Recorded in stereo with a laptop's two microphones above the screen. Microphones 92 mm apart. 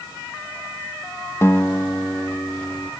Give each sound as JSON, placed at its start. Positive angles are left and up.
{"t": 1.4, "sound": "a guitar", "side_deg": 30, "distance_m": 0.7}